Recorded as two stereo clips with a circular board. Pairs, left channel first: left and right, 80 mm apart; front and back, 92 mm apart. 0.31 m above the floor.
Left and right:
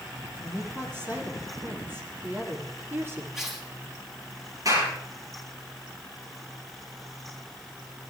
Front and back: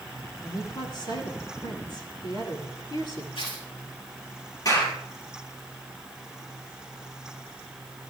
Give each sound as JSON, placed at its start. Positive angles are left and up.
{"t": 0.4, "sound": "a woman speaking", "azimuth_deg": -35, "distance_m": 7.5}
{"t": 3.4, "sound": "tearing paper", "azimuth_deg": -5, "distance_m": 7.0}
{"t": 4.7, "sound": "a clap", "azimuth_deg": -50, "distance_m": 7.0}